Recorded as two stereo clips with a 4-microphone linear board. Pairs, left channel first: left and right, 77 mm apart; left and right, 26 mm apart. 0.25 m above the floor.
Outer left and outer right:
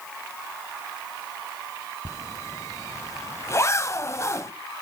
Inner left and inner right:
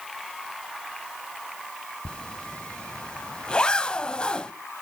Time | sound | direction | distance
2.0 | a zipper | 40° left (ahead or behind) | 0.6 m